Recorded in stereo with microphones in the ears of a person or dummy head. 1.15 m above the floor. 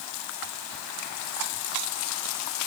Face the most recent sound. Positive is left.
No sound to turn to.